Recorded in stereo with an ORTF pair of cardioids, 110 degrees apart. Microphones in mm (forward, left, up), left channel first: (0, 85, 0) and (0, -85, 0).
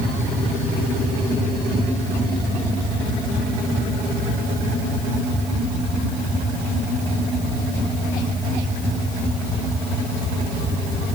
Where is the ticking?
I don't hear ticking.